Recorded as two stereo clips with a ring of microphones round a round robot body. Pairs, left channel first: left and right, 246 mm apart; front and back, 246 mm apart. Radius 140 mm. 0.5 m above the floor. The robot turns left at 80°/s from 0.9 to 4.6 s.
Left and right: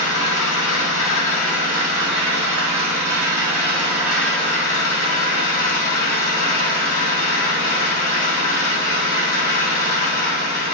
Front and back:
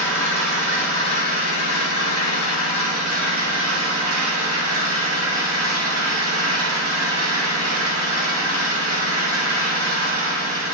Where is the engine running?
80° left, 1.5 m; by 10.7 s 145° left, 1.5 m.